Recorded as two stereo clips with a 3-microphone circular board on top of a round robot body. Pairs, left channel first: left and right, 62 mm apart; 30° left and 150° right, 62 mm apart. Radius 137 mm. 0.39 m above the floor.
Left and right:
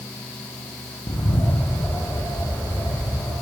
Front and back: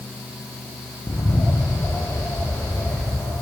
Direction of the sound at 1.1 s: 75° left.